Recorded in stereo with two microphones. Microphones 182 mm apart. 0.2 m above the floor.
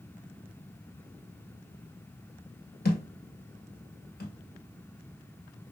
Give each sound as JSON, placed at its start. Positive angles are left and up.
{"t": 2.9, "sound": "a thud", "side_deg": 60, "distance_m": 0.9}